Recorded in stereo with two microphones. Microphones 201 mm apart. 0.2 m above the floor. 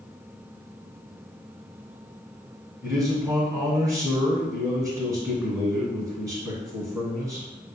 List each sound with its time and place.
2.8 s a man speaking: 15° right (ahead or behind), 1.8 m